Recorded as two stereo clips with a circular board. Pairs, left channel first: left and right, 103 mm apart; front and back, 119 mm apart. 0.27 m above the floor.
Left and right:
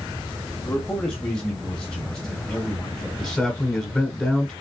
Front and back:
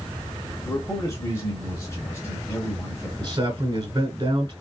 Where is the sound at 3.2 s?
170° left, 1.6 m.